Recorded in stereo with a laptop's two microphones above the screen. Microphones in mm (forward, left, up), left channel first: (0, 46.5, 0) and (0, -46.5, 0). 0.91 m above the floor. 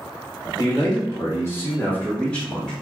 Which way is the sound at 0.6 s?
25° left (ahead or behind).